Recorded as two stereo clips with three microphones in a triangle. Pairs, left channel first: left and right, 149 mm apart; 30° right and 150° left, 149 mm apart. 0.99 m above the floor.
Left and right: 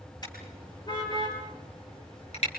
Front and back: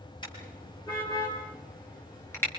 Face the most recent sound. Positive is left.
turn(degrees=45)